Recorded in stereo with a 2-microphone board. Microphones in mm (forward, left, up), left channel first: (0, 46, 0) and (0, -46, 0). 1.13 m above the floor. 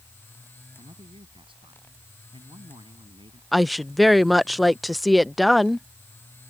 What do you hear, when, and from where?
0.8 s a man speaking: 70° right (ahead or behind)
3.5 s a woman speaking: centre (ahead or behind)